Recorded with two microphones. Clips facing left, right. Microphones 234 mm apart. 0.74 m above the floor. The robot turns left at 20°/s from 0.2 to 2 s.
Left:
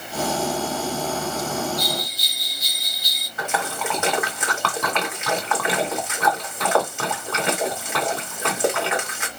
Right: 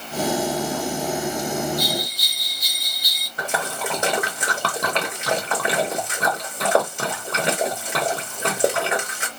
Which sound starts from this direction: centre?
A bell, at 1.8 s.